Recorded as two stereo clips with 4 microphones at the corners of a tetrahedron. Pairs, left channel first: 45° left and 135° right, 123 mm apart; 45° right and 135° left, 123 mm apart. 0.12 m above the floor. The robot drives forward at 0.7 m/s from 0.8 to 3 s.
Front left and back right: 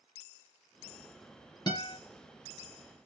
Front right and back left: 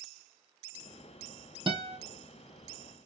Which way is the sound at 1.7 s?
95° left.